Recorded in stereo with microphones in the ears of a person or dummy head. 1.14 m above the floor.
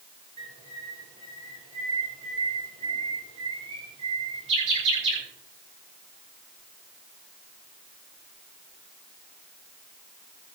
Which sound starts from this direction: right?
A bird, at 0.4 s.